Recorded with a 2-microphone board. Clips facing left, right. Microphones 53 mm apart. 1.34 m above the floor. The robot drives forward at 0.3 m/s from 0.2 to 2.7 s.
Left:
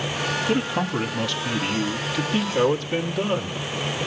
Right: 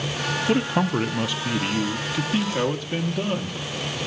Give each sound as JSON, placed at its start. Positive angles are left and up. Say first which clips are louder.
{"t": 0.5, "sound": "a man speaking", "louder": "right 4 dB", "side_deg": -20, "distance_m": 0.6}